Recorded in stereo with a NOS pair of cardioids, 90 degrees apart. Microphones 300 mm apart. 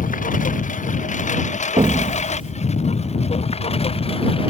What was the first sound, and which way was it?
A lawn mower, 30° left.